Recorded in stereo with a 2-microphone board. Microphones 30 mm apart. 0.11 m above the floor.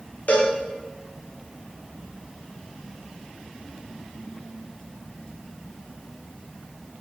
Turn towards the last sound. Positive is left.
turn(degrees=55)  # may be behind; listen again after turning